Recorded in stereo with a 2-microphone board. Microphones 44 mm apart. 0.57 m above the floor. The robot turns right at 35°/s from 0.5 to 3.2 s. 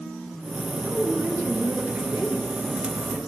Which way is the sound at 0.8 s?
85° right.